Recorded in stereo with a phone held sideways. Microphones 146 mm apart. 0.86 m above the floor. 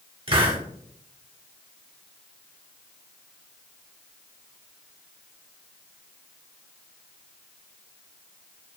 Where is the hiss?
40° right (ahead or behind), 0.8 m.